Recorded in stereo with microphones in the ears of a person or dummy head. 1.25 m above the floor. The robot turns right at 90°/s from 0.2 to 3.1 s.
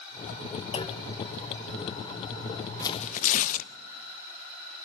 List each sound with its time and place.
0.7 s a clunk: 150° left, 0.9 m; by 1.1 s straight behind, 0.9 m
2.8 s tearing paper: 15° left (ahead or behind), 0.6 m; by 3.7 s 45° left (ahead or behind), 0.6 m